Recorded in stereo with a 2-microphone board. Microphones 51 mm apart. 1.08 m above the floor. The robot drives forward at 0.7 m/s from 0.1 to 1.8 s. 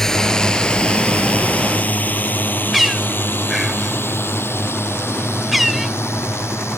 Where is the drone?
10° left (ahead or behind); by 6.8 s 55° left (ahead or behind).